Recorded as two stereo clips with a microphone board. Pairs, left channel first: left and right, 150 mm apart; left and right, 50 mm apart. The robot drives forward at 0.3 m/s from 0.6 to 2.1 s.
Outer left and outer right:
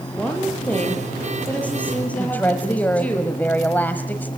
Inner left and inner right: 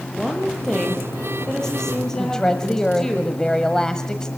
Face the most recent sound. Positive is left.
turn(degrees=15)  # may be behind; listen again after turning